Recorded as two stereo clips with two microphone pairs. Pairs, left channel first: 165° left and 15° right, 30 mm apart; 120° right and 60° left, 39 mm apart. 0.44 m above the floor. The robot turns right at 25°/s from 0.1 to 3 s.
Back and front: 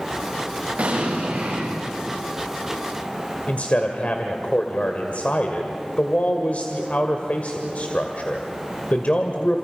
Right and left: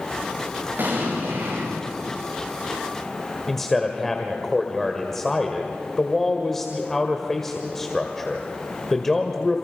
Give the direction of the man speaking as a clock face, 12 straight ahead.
7 o'clock.